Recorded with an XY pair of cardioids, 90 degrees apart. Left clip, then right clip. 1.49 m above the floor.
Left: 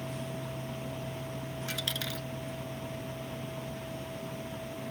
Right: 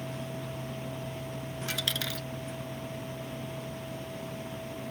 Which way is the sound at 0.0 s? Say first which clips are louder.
Even; 5° right.